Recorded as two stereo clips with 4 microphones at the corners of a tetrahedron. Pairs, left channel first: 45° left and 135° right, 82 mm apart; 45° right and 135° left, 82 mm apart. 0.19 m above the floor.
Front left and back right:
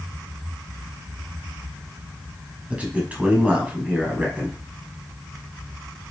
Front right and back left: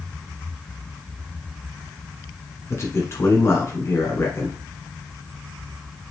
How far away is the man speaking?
About 1.4 m.